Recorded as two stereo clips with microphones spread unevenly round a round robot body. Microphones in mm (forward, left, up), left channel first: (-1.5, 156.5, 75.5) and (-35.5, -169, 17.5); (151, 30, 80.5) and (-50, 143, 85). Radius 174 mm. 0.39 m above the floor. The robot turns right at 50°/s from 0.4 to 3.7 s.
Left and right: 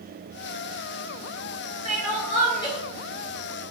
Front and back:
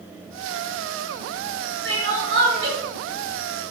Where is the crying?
130° left, 1.8 m; by 2.8 s 175° left, 1.8 m.